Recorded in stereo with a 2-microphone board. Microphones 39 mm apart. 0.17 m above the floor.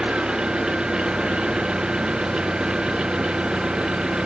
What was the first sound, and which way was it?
An engine running, 25° right (ahead or behind).